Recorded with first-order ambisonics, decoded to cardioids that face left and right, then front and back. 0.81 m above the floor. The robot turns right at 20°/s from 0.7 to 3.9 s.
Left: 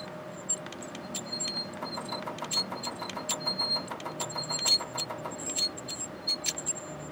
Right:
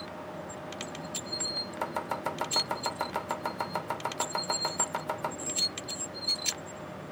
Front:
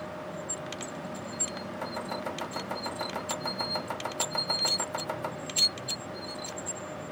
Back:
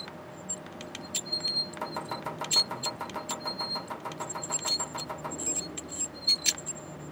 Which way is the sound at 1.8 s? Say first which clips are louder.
Right 3 dB, even; 105° right.